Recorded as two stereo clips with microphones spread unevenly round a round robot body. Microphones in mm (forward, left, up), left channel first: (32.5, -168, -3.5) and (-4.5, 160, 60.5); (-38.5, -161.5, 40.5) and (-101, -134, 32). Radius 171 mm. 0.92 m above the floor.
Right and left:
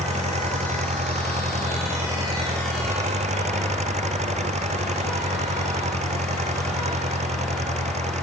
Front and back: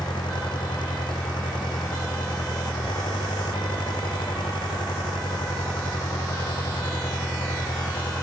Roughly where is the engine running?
Ahead left.